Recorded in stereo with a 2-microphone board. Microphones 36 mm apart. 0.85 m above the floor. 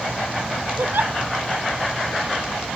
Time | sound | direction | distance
0.8 | a giggle | 70° right (ahead or behind) | ?